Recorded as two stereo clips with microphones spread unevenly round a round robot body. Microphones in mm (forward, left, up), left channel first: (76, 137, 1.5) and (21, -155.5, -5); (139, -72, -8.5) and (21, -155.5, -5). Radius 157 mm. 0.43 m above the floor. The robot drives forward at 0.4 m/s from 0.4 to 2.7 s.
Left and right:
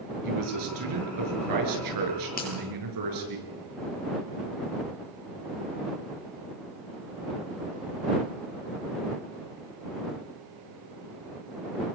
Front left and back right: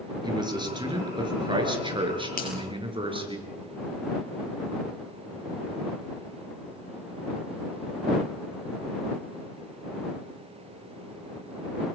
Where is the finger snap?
20° left, 8.5 m.